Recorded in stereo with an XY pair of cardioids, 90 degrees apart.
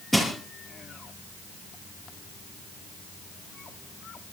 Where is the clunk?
I don't hear a clunk.